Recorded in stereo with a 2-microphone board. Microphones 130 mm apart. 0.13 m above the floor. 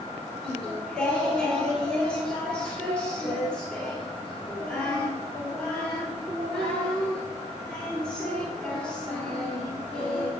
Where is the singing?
5° left (ahead or behind), 2.5 m.